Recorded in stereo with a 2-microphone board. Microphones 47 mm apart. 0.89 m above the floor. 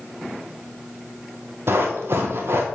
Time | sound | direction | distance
1.7 | running footsteps | 55° right (ahead or behind) | 1.5 m